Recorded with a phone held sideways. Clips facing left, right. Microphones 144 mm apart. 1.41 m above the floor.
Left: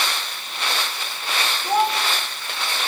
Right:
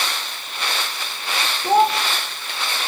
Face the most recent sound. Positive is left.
turn(degrees=-30)  # may be behind; listen again after turning